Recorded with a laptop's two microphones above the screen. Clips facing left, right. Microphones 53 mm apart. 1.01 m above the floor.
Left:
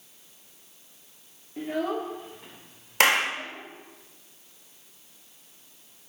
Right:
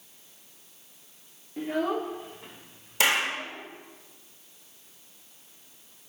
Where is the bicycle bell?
I don't hear a bicycle bell.